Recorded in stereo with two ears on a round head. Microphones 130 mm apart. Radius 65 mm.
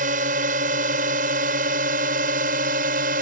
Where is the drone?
60° right (ahead or behind); by 3.2 s 65° right (ahead or behind).